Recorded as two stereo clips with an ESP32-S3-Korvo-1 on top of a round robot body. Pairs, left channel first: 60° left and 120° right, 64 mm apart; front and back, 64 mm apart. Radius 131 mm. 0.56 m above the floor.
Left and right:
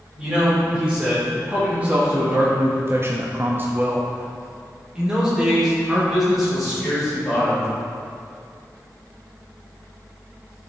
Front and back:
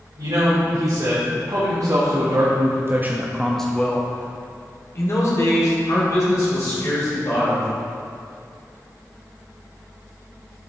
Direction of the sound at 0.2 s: 165° left.